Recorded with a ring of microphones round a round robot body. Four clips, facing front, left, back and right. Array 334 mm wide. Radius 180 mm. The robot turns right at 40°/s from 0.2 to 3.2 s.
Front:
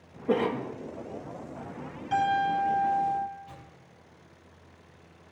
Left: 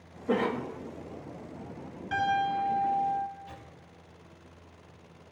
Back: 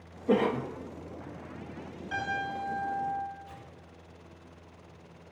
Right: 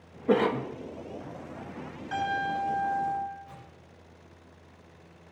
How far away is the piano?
About 7.5 m.